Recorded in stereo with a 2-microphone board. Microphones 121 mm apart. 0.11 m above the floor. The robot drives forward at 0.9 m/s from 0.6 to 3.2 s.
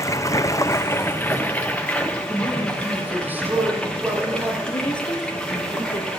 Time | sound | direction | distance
0.0 | running water | 25° left (ahead or behind) | 0.8 m
2.3 | a man speaking | 15° right (ahead or behind) | 5.5 m
4.7 | a woman speaking | 40° left (ahead or behind) | 3 m